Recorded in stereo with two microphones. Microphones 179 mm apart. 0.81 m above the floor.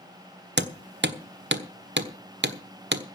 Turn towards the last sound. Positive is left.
turn(degrees=-90)